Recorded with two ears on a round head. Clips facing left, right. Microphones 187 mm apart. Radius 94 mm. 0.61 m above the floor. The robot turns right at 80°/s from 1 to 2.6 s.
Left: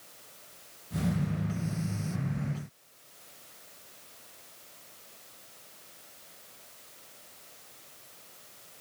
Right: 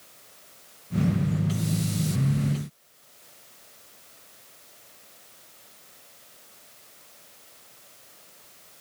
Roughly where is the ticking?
No ticking in this recording.